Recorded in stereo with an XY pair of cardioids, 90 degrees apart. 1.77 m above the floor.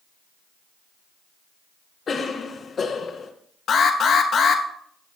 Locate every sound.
2.1 s a cough: 50° left, 1.2 m
3.7 s an alarm: 70° left, 1.5 m